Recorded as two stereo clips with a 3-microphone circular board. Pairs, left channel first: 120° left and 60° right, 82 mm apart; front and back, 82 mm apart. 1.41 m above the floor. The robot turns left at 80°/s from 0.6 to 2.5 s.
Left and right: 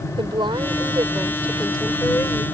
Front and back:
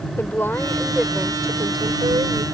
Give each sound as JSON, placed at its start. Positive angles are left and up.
{"t": 0.2, "sound": "a woman speaking", "azimuth_deg": -65}